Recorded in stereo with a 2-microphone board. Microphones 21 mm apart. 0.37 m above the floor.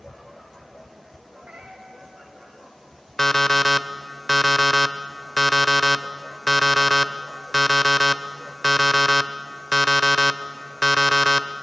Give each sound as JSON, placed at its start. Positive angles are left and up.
{"t": 1.4, "sound": "a cat meowing", "side_deg": -80, "distance_m": 4.0}
{"t": 3.2, "sound": "an alarm clock", "side_deg": 15, "distance_m": 0.7}